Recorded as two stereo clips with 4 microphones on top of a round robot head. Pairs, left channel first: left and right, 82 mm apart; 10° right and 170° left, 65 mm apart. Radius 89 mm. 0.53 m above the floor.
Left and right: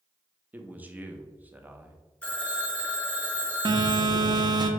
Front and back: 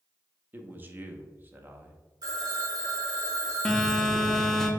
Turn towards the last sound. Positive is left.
turn(degrees=-90)